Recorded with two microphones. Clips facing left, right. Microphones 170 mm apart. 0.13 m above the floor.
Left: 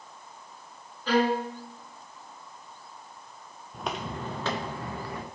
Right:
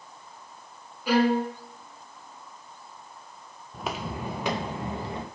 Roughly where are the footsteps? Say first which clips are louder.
Right 1 dB; centre.